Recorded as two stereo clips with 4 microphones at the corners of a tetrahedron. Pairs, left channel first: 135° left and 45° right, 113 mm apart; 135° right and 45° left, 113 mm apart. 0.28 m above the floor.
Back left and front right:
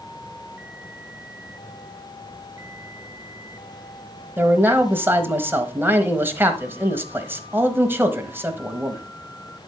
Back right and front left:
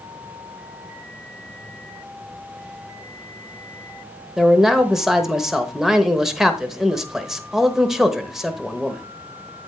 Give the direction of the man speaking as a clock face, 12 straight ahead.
1 o'clock.